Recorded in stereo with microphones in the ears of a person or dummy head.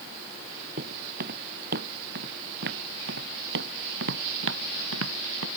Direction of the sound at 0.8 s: 55° right (ahead or behind).